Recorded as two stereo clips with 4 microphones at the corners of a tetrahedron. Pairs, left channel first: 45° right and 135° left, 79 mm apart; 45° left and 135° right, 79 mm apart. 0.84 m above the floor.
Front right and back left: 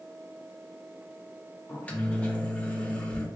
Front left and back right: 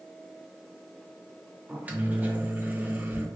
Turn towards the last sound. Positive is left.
turn(degrees=-95)